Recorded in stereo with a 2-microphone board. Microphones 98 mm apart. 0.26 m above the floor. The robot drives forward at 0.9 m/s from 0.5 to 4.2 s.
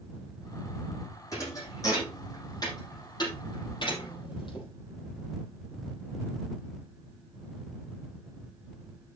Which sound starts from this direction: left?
A thud, at 1.3 s.